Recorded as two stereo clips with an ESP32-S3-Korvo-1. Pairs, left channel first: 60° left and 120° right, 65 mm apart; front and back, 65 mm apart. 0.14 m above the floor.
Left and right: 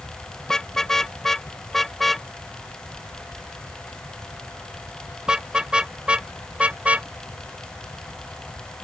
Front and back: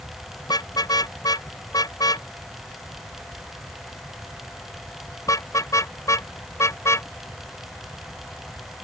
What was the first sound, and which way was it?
A car horn, 25° right.